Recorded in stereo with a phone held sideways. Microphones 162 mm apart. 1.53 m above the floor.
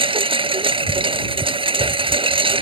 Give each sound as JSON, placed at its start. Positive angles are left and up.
{"t": 0.0, "sound": "a lawn mower", "side_deg": -35}